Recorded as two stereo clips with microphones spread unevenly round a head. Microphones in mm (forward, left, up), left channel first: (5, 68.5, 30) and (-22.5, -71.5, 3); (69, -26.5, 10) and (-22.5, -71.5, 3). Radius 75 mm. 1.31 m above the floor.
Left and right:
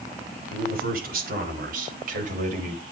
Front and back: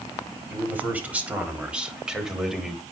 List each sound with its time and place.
0.5 s a man speaking: 85° right, 4 m; by 2.8 s 65° right, 3 m